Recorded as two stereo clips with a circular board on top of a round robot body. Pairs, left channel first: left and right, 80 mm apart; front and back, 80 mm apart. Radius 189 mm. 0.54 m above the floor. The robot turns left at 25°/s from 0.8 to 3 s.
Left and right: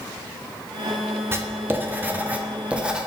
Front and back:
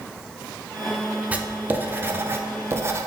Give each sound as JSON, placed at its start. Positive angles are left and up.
{"t": 1.3, "sound": "writing", "azimuth_deg": -120, "distance_m": 0.7}